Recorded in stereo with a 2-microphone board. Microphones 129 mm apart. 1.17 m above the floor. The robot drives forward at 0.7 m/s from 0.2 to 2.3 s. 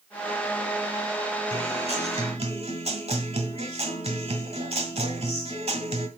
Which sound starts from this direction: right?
A guitar, at 1.5 s.